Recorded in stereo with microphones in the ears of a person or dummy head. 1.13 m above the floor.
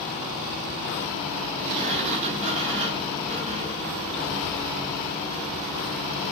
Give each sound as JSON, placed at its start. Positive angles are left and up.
{"t": 1.7, "sound": "a sliding door", "side_deg": -30, "distance_m": 6.5}